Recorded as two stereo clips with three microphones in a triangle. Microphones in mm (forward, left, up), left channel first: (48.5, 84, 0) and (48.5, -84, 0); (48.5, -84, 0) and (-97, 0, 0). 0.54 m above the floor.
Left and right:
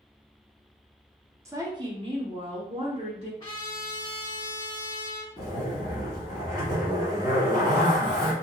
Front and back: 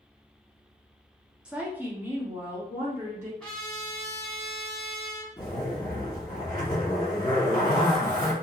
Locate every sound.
1.4 s a woman speaking: 135° right, 0.7 m
3.4 s a trumpet: 45° left, 1.4 m
5.4 s a zipper: 55° right, 1.3 m